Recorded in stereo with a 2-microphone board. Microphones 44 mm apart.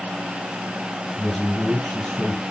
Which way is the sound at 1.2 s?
5° left (ahead or behind).